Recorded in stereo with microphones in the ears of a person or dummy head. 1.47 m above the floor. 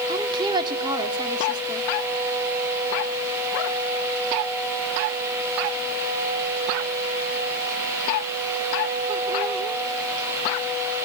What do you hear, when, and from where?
0.1 s a woman speaking: 25° right (ahead or behind), 3 m